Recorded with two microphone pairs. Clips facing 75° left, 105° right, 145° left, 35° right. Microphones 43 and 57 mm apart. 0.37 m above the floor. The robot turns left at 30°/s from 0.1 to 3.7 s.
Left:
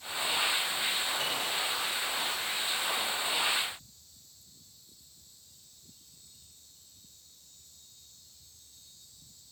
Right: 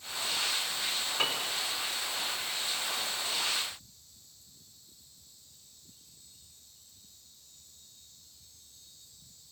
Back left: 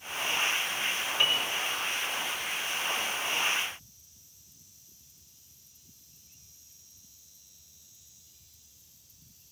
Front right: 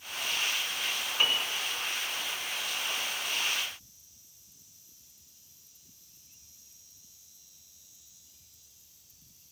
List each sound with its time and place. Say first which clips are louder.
1.2 s a piano: right 1 dB, even; 110° right, 3 m; by 1.5 s 120° right, 3 m